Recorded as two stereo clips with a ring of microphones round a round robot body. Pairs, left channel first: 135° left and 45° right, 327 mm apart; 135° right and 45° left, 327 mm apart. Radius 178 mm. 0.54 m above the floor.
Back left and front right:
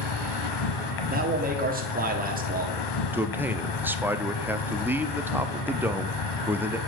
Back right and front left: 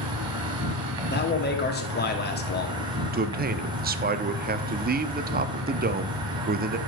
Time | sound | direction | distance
0.0 | an insect | 120° left | 1.3 m
1.1 | a man speaking | 95° right | 1.6 m
3.1 | a man speaking | 30° left | 0.6 m